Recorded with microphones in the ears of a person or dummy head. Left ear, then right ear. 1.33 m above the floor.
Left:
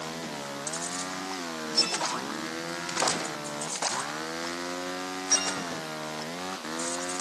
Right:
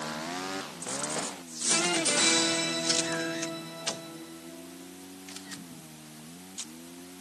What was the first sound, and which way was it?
Only background noise.